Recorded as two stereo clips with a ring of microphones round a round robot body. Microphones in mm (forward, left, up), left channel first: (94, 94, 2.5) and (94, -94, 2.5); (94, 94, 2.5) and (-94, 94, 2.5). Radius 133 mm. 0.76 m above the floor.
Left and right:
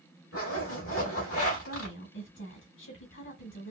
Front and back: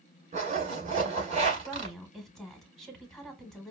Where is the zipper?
125° left, 2 m.